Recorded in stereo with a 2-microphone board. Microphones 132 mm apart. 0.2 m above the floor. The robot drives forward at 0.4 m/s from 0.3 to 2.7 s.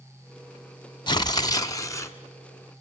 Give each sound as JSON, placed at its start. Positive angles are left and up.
{"t": 1.1, "sound": "tearing paper", "side_deg": 35, "distance_m": 0.6}